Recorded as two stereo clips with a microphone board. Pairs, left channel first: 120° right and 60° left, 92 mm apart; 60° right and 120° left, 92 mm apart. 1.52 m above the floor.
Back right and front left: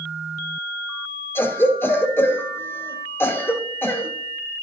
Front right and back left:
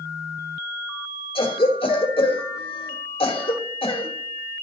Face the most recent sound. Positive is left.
turn(degrees=-55)